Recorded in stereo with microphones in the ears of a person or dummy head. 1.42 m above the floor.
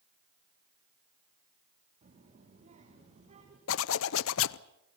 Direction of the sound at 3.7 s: 75° left (ahead or behind).